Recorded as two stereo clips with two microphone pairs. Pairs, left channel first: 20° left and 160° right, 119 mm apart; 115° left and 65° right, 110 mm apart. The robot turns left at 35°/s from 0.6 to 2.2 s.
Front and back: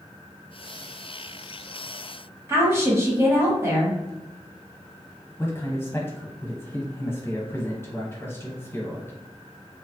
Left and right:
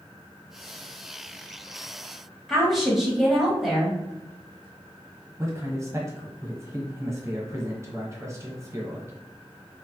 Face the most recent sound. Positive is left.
turn(degrees=-30)